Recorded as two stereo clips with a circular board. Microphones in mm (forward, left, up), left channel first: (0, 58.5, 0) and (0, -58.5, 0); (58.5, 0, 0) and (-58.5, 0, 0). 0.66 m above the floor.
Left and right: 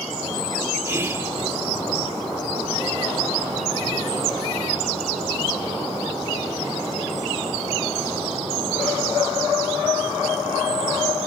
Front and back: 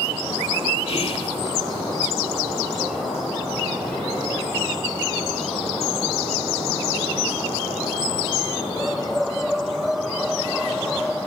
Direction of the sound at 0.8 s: 25° right.